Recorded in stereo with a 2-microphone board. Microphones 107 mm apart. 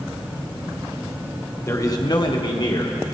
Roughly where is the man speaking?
Left.